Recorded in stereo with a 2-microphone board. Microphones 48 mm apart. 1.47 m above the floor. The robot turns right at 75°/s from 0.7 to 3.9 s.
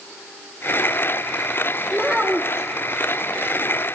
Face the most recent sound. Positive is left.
turn(degrees=-25)